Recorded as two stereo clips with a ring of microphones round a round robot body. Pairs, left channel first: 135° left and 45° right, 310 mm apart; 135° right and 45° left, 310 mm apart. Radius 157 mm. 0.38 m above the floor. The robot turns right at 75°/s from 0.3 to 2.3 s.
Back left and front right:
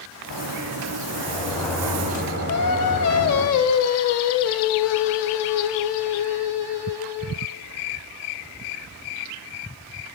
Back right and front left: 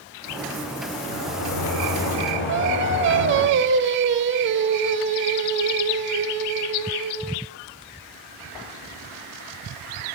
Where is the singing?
95° left, 0.7 m.